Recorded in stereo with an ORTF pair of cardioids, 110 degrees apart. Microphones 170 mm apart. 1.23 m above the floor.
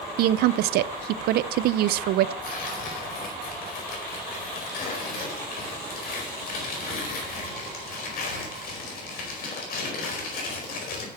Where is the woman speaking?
70° right, 0.6 m.